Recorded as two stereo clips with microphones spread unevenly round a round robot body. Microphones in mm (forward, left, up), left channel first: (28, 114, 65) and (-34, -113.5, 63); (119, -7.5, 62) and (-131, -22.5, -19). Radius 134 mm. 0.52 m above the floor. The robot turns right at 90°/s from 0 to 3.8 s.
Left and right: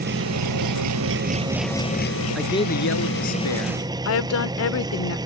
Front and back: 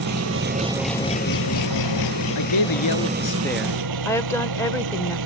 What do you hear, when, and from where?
0.0 s an engine running: 165° right; by 5.3 s straight behind
2.4 s a man speaking: 15° right; by 3.8 s 115° left
4.0 s a woman speaking: 95° left